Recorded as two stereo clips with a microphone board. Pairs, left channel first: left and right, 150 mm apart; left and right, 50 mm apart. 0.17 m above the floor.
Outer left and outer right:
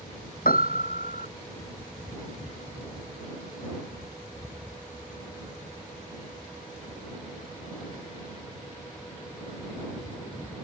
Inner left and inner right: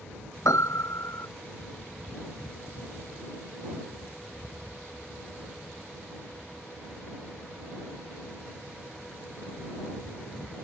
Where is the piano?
70° left (ahead or behind).